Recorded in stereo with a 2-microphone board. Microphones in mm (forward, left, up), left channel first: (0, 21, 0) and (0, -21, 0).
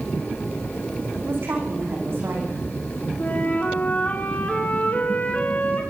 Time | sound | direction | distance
1.2 | a woman speaking | 60° right (ahead or behind) | 8.5 m
3.2 | a flute | 45° left (ahead or behind) | 9.5 m